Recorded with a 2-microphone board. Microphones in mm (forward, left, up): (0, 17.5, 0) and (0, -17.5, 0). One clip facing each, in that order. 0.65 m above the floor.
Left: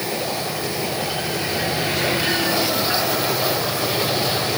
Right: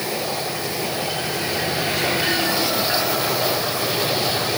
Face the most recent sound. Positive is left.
No sound to turn to.